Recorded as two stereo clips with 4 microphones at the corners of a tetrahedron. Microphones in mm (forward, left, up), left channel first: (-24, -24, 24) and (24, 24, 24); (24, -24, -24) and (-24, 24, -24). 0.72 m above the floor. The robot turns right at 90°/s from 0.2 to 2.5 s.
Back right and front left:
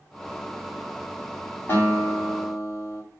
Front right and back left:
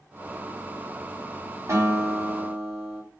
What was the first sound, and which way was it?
A guitar, 170° left.